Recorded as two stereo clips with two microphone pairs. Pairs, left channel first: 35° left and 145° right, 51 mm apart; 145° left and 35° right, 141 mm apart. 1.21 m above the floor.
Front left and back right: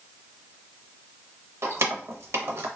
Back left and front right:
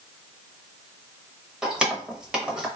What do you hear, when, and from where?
1.6 s keys jangling: 120° right, 0.8 m